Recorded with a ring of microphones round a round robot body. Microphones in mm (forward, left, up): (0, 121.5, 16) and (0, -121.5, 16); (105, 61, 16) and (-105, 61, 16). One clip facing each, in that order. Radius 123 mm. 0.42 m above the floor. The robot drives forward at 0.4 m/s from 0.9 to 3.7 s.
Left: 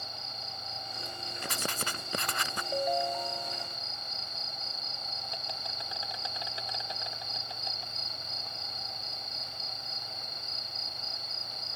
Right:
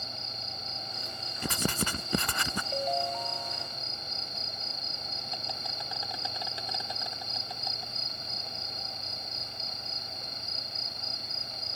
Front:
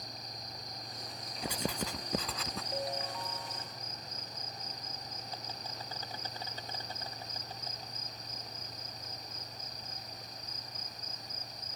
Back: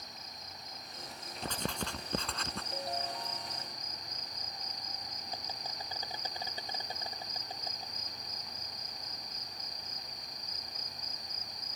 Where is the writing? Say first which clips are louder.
Right 7 dB, front 2 dB; 85° right; by 2.6 s 90° right.